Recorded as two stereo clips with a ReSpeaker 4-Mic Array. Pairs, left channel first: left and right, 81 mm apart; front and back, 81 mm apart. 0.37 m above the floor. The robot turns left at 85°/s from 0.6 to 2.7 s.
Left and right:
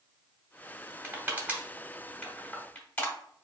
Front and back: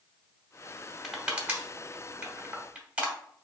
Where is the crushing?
90° right, 1.1 m; by 3.1 s 125° left, 1.1 m.